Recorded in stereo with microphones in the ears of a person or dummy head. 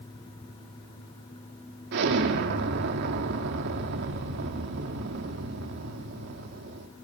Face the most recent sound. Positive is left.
turn(degrees=-55)  # may be behind; listen again after turning